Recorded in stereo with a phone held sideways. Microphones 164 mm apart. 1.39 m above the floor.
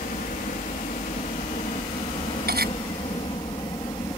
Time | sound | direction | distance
0.0 | a helicopter | 60° left (ahead or behind) | ?
2.5 | cutlery clinking | 75° right (ahead or behind) | ?